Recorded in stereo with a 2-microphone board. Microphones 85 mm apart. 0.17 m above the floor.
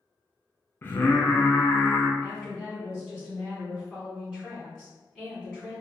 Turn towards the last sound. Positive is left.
turn(degrees=5)  # may be behind; listen again after turning